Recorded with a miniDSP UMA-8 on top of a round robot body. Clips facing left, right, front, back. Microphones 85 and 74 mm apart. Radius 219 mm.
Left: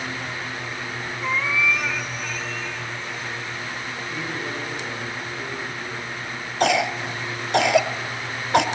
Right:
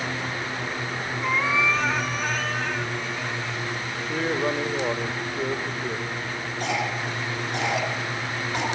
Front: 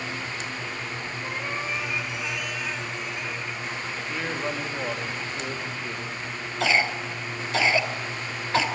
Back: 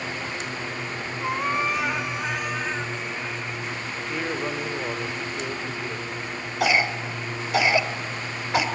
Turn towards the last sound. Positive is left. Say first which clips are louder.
# left 7 dB, back 1 dB
turn(degrees=105)